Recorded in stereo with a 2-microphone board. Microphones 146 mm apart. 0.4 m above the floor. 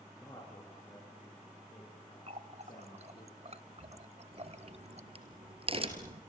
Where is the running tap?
50° right (ahead or behind), 0.9 m.